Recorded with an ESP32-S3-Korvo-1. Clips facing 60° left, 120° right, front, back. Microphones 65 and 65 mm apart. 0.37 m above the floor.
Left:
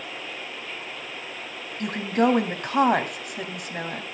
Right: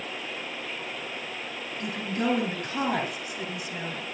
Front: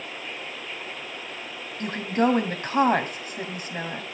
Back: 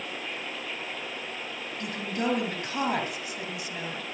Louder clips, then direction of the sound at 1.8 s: Left 7 dB, front 8 dB; 40° left.